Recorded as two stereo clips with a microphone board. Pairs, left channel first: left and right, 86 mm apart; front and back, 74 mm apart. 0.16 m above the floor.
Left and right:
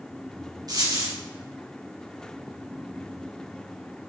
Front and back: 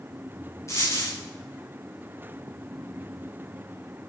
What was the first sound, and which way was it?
A dropped coin, 50° right.